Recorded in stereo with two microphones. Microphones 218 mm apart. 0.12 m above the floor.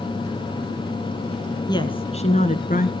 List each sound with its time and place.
1.7 s a woman speaking: 20° left (ahead or behind), 1.4 m; by 2.9 s 40° left (ahead or behind), 1.7 m